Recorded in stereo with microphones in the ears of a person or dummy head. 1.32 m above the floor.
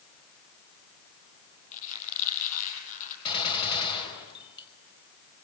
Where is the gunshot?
30° left (ahead or behind), 5 m.